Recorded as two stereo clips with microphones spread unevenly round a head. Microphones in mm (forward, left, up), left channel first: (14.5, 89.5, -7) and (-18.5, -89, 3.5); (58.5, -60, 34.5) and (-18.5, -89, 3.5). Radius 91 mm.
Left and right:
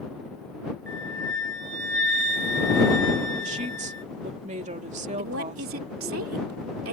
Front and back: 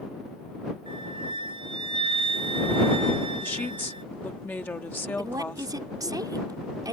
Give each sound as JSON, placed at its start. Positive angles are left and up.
{"t": 0.9, "sound": "a flute", "azimuth_deg": -140}
{"t": 3.4, "sound": "a woman speaking", "azimuth_deg": -45}
{"t": 5.2, "sound": "a woman speaking", "azimuth_deg": -115}